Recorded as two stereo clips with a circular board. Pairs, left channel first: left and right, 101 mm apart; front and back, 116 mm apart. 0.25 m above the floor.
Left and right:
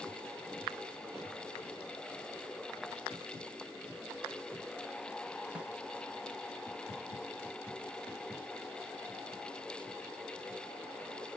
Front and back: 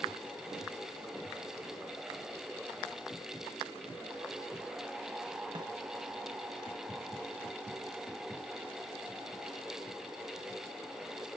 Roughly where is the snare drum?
Behind.